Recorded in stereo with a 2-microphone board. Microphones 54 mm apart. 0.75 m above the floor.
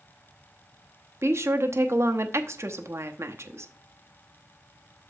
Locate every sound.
1.2 s a woman speaking: 60° right (ahead or behind), 0.8 m